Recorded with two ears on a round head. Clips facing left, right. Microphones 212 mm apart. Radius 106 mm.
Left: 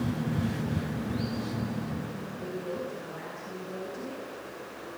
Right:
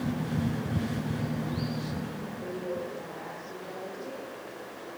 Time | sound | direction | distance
2.4 | a woman speaking | 30° left (ahead or behind) | 8 m